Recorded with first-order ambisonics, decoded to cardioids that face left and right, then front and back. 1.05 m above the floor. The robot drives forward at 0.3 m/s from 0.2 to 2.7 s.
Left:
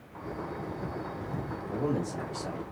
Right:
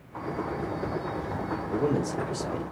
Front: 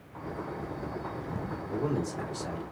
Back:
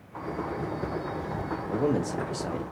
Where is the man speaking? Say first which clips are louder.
Right 4 dB, back 5 dB; 165° right, 0.7 m; by 2.6 s 170° right, 0.9 m.